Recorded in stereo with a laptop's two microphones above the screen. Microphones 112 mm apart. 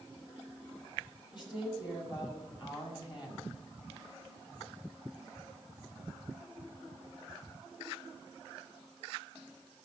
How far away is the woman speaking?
About 6.5 m.